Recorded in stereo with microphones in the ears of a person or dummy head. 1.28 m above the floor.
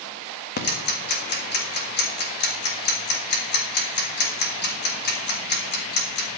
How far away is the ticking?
About 1.5 m.